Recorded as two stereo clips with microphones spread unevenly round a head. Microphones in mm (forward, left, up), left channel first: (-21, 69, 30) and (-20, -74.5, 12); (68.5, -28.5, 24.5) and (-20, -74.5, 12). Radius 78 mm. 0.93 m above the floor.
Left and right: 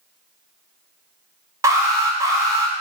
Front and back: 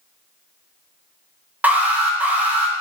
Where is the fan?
No fan in this recording.